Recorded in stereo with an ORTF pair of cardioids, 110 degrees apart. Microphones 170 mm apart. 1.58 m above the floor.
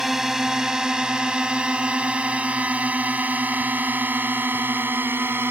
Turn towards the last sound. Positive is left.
turn(degrees=-10)